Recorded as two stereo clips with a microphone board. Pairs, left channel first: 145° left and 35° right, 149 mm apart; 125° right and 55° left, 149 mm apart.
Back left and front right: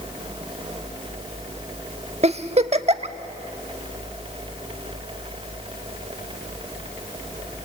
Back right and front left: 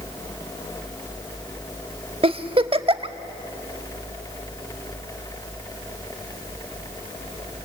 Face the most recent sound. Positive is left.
turn(degrees=5)